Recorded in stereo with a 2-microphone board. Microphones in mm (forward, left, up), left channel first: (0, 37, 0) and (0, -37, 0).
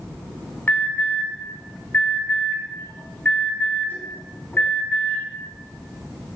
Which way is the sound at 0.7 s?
30° left (ahead or behind).